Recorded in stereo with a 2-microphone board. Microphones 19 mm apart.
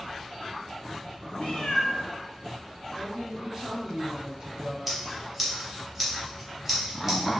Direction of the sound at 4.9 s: 5° right (ahead or behind).